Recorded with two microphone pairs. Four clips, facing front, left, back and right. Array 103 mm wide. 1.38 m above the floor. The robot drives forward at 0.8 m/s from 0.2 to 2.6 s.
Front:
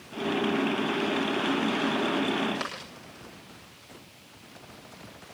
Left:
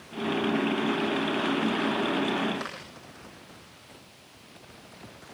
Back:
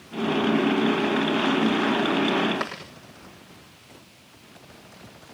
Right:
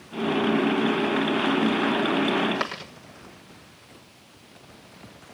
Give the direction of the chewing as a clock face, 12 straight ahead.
4 o'clock.